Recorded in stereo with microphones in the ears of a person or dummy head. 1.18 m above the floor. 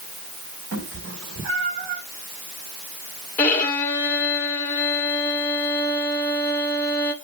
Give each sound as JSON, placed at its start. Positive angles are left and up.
{"t": 0.7, "sound": "a cat meowing", "side_deg": -60, "distance_m": 1.3}
{"t": 3.4, "sound": "a violin", "side_deg": 15, "distance_m": 1.4}